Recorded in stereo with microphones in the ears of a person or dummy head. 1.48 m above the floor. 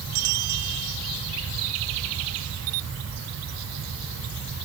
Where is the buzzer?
I don't hear a buzzer.